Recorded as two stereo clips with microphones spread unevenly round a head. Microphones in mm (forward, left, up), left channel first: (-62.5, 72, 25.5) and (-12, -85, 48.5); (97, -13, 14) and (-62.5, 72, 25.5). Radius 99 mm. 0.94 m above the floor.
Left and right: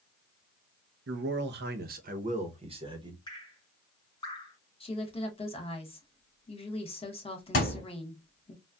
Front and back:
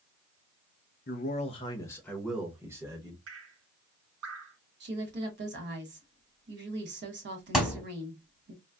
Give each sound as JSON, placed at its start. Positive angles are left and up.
{"t": 1.1, "sound": "a man speaking", "azimuth_deg": -65, "distance_m": 0.8}
{"t": 3.3, "sound": "dripping", "azimuth_deg": 175, "distance_m": 1.8}
{"t": 4.8, "sound": "a woman speaking", "azimuth_deg": 150, "distance_m": 1.3}
{"t": 7.5, "sound": "a thud", "azimuth_deg": 65, "distance_m": 1.0}